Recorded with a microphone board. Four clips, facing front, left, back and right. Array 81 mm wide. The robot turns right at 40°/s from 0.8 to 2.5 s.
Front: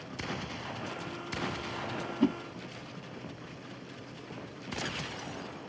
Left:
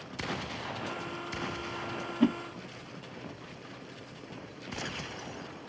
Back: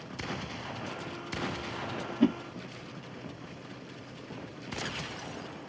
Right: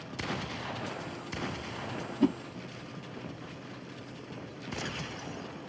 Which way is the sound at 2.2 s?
125° left.